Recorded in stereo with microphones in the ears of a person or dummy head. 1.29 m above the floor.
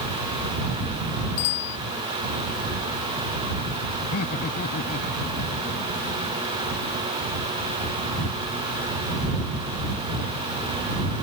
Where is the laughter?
50° left (ahead or behind).